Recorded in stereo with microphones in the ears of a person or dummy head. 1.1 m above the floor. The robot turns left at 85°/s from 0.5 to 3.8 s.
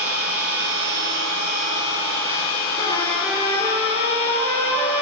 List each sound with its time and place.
0.0 s an engine running: 45° right, 6.5 m; by 5.0 s 30° left, 6.5 m
2.8 s a trumpet: 35° left, 3 m; by 5.0 s 55° right, 3 m